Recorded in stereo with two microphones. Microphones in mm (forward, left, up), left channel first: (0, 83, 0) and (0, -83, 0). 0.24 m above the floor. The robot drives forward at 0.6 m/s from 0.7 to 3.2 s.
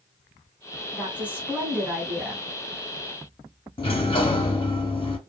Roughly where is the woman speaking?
Centre.